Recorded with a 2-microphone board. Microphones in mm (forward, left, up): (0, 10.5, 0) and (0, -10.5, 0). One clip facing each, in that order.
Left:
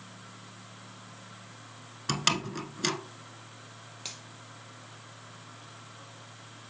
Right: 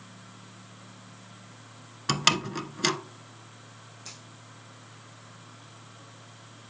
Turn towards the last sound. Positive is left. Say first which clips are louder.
# left 4 dB
turn(degrees=65)  # may be behind; listen again after turning